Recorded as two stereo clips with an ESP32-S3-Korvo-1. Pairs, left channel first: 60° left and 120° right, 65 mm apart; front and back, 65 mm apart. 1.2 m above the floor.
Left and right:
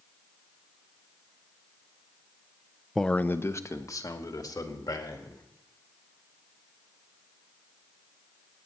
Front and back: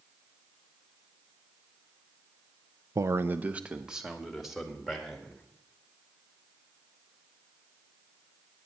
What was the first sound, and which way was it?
A man speaking, 150° left.